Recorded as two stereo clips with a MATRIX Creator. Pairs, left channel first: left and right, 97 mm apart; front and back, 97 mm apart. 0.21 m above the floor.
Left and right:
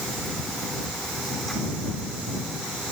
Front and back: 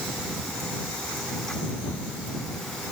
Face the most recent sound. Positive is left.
No sound to turn to.